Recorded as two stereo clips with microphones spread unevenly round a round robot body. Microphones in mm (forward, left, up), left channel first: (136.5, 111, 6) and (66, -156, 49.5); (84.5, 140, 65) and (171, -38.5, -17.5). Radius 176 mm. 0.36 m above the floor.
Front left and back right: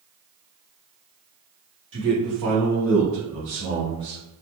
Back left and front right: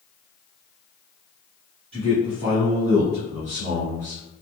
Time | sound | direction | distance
1.9 | a man speaking | 130° right | 1.3 m